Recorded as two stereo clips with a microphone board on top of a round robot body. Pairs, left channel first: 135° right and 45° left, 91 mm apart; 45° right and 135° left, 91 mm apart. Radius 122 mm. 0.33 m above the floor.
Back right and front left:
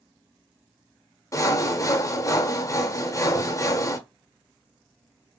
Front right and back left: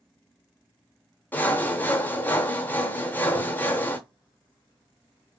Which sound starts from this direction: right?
Sawing, at 1.3 s.